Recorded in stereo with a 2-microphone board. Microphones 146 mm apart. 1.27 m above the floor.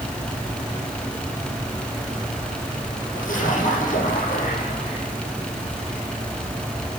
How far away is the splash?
About 7.5 m.